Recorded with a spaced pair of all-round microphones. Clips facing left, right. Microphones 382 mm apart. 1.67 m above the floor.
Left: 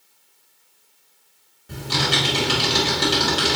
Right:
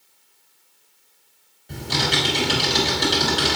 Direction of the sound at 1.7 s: 15° left (ahead or behind).